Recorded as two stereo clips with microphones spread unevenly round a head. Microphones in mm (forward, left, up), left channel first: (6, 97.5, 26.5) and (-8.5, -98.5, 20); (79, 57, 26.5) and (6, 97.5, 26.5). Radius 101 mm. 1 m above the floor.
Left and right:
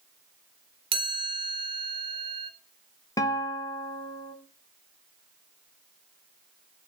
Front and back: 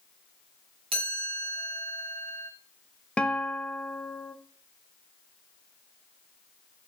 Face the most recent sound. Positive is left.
turn(degrees=30)